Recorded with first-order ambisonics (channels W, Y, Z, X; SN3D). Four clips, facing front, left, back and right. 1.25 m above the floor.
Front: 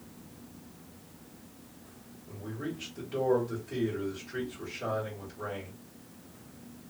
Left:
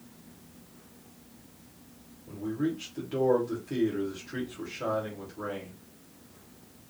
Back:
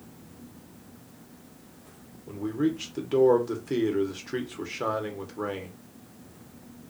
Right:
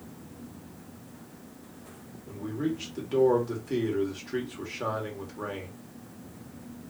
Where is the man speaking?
165° right, 1.0 m.